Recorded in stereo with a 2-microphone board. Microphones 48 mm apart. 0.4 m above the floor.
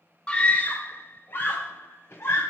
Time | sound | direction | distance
0.3 | a scream | 25° left (ahead or behind) | 0.8 m